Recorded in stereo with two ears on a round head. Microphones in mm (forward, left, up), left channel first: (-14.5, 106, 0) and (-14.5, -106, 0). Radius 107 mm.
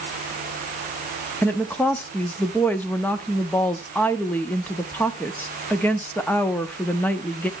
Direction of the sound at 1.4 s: 5° left (ahead or behind).